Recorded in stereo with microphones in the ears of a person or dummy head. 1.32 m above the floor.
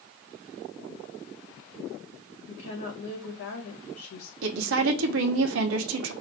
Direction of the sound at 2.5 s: 75° left (ahead or behind).